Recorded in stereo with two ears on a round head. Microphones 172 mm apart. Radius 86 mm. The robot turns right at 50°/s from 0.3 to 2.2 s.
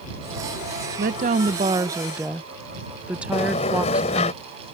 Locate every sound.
1.0 s a woman speaking: 70° right; by 4.3 s 10° right
3.3 s a sliding door: 35° left (ahead or behind)